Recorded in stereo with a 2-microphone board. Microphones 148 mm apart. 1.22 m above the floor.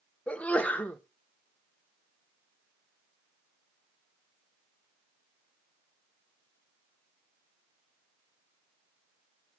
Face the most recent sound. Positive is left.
turn(degrees=10)  # may be behind; listen again after turning